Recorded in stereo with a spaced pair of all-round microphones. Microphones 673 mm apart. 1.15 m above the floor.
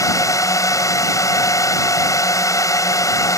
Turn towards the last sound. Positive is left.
turn(degrees=5)  # may be behind; listen again after turning